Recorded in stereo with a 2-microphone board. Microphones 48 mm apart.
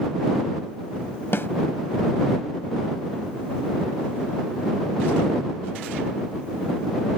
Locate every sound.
1.3 s a snare drum: 55° left (ahead or behind)